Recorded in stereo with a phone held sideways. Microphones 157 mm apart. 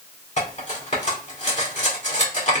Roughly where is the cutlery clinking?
Left.